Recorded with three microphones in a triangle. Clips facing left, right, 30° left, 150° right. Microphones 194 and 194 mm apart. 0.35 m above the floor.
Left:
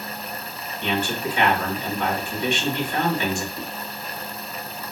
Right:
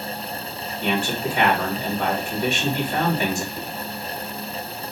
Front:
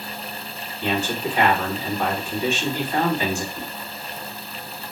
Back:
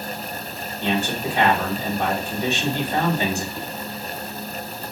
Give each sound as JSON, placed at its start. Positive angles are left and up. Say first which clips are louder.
{"t": 0.8, "sound": "a man speaking", "louder": "right 1 dB, even", "azimuth_deg": -105, "distance_m": 1.5}
{"t": 3.5, "sound": "a whoosh", "louder": "right 1 dB, back 1 dB", "azimuth_deg": -50, "distance_m": 1.8}